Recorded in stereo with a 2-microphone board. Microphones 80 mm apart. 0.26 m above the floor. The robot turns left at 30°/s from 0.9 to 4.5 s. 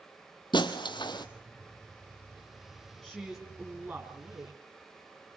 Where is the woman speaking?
5° left, 2.5 m; by 4.6 s 40° right, 2.5 m.